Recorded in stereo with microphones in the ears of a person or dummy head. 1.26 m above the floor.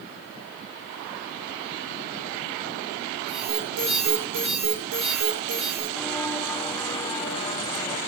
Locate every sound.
3.3 s an alarm: 65° right (ahead or behind), 8.5 m
6.0 s footsteps: 10° left (ahead or behind), 3.5 m; by 8.0 s 30° left (ahead or behind), 3 m